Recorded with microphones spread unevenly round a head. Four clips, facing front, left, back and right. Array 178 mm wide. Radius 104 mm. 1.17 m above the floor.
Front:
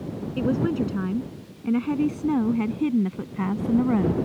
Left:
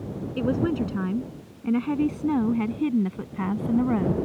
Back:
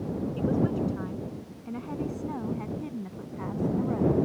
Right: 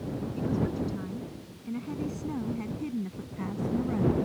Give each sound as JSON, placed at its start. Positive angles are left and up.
{"t": 0.4, "sound": "a woman speaking", "azimuth_deg": 35}